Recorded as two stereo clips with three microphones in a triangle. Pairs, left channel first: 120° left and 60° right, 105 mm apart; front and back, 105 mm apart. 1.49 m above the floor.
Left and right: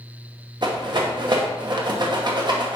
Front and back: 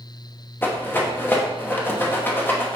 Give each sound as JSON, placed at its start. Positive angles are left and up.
{"t": 0.6, "sound": "a rattle", "azimuth_deg": -60, "distance_m": 1.0}